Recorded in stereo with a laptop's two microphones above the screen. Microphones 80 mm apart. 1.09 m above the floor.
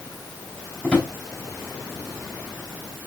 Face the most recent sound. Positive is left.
turn(degrees=20)  # may be behind; listen again after turning